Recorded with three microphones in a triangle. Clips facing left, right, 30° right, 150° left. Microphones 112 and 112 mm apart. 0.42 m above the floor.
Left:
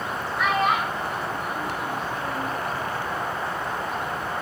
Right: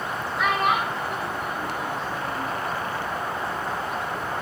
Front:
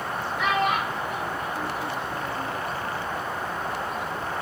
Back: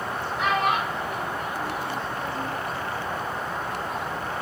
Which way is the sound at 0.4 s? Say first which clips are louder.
Even, even; 170° right.